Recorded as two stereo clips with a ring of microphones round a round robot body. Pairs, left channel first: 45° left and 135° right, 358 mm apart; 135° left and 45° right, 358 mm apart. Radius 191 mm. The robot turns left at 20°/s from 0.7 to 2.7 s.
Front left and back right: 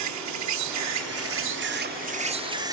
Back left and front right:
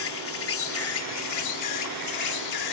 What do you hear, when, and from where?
0.0 s an insect: 175° right; by 2.7 s 145° left